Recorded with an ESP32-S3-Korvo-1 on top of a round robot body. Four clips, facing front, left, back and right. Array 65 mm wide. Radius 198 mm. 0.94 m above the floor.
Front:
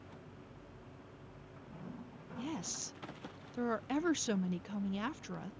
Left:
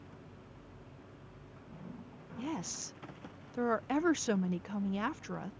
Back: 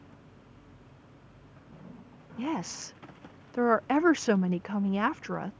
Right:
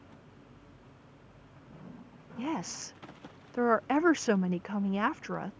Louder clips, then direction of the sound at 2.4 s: Right 5 dB, back 10 dB; 150° right.